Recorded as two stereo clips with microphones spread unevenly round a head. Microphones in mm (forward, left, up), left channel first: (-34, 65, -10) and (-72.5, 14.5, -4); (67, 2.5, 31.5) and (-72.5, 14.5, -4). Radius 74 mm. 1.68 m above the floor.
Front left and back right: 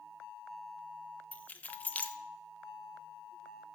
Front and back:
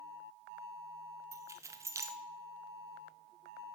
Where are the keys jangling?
95° left, 0.6 m.